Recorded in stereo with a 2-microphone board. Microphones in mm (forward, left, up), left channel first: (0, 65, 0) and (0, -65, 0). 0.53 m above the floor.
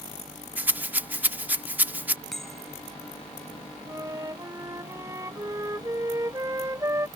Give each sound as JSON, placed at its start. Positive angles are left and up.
{"t": 0.6, "sound": "a rattle", "side_deg": -10}
{"t": 2.3, "sound": "a bell", "side_deg": 0}
{"t": 3.9, "sound": "a flute", "side_deg": -25}